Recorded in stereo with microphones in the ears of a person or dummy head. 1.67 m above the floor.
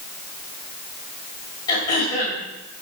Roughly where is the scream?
I don't hear a scream.